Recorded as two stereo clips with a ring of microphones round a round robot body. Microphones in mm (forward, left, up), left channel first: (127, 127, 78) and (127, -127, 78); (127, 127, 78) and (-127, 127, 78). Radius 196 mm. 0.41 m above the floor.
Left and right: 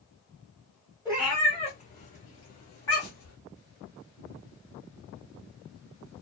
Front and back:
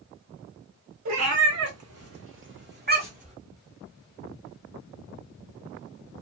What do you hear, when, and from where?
1.1 s a cat meowing: 175° right, 1.0 m; by 3.4 s 115° left, 1.4 m